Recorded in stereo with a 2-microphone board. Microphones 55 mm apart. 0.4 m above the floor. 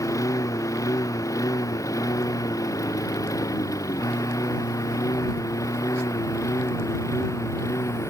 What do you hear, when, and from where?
0.0 s a lawn mower: 75° left (ahead or behind); by 8.1 s 65° left (ahead or behind)